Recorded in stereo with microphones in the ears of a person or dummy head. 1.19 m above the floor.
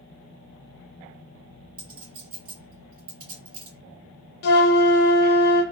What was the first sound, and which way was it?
A clink, 30° right (ahead or behind).